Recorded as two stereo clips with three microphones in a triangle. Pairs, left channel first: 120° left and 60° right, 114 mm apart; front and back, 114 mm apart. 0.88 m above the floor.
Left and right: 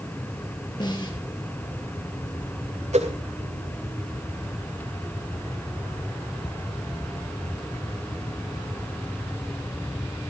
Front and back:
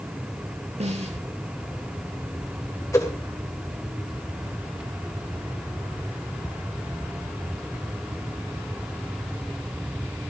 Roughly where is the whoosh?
Ahead right.